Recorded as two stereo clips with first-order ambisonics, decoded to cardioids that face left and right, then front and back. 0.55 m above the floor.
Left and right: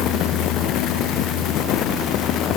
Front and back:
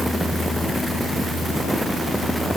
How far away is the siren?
I don't hear a siren.